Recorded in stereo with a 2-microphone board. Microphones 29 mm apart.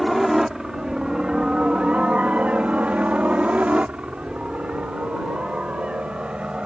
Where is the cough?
I don't hear a cough.